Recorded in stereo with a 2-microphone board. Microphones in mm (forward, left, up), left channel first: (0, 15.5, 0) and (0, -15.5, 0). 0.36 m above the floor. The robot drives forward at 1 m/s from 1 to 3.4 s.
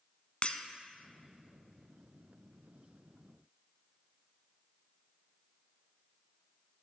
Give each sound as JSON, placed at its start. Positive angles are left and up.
{"t": 0.4, "sound": "breaking glass", "side_deg": 40, "distance_m": 0.6}